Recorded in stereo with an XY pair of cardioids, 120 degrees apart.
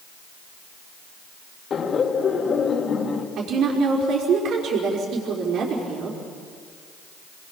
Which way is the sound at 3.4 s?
65° right.